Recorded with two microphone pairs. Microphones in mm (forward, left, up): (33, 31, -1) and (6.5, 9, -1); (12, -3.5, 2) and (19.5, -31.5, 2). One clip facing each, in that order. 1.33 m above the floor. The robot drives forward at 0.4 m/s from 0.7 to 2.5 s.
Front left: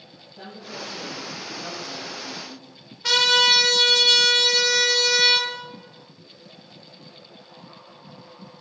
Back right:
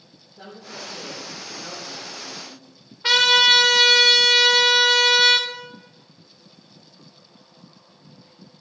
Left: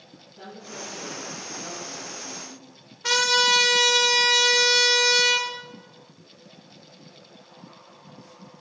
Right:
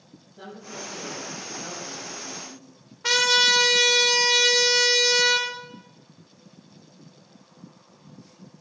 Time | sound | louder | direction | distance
0.4 | a woman speaking | front left 1 dB, right 1 dB | 5° left | 2.5 m
3.0 | a trumpet | back right 3 dB, right 1 dB | 130° right | 1.0 m